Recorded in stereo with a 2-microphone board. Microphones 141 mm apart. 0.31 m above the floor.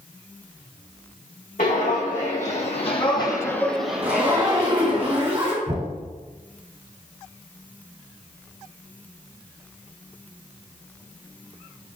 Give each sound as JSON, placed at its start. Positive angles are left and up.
{"t": 1.6, "sound": "footsteps", "side_deg": 70, "distance_m": 1.2}
{"t": 4.0, "sound": "a zipper", "side_deg": -40, "distance_m": 1.5}
{"t": 5.7, "sound": "knocking", "side_deg": -45, "distance_m": 1.1}